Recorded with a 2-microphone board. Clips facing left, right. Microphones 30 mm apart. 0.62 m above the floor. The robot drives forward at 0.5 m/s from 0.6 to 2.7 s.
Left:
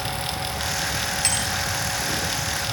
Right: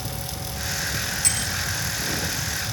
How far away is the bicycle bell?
About 3 m.